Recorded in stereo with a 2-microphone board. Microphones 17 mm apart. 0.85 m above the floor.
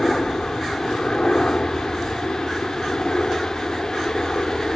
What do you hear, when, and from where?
0.0 s a helicopter: 45° left (ahead or behind)